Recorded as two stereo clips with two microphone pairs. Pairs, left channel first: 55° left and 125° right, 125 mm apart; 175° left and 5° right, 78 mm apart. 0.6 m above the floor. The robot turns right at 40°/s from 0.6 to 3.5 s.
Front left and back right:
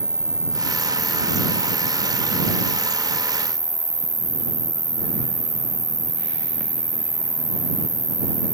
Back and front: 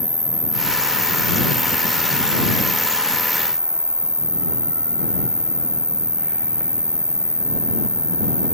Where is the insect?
135° left; by 8.5 s 110° right.